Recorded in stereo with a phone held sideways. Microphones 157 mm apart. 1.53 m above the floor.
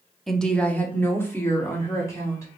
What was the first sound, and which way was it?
A woman speaking, centre (ahead or behind).